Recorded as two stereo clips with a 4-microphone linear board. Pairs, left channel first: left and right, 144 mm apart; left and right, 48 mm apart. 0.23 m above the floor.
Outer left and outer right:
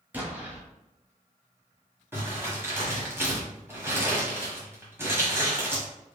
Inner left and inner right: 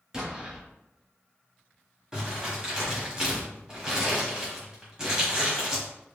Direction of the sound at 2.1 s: 15° right (ahead or behind).